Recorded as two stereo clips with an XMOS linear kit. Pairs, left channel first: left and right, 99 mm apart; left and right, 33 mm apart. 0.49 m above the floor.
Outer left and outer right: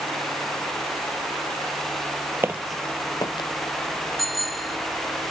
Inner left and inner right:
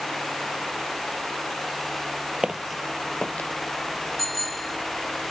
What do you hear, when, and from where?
2.4 s footsteps: 25° right (ahead or behind); by 3.5 s 55° left (ahead or behind)
4.2 s a bicycle bell: centre (ahead or behind)